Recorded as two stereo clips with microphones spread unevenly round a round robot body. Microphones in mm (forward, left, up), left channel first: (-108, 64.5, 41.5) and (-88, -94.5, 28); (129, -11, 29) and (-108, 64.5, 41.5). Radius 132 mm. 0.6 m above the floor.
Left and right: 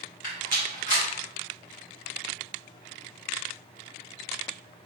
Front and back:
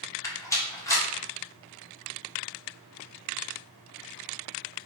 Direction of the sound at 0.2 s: 60° left.